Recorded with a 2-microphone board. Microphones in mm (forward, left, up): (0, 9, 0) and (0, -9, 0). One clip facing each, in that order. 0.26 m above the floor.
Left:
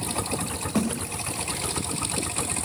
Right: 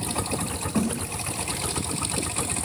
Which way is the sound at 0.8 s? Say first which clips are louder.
Even; 65° left (ahead or behind).